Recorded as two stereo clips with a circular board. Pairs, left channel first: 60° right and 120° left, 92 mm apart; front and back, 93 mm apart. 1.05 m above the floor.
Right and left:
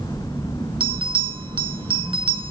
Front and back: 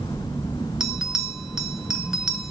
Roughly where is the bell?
Left.